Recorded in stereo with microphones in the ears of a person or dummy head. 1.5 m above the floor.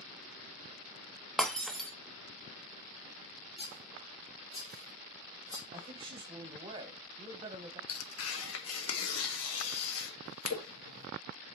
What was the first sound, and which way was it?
Breaking glass, 5° left (ahead or behind).